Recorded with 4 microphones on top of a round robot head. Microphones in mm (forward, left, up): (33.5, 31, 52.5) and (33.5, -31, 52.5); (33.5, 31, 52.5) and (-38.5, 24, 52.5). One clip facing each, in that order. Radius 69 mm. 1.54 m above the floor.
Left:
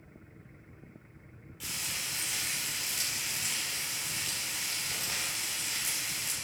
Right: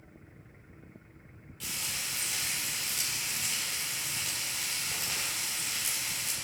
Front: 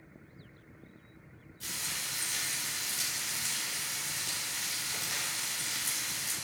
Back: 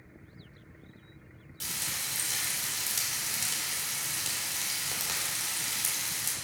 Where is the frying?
175° left, 3 m.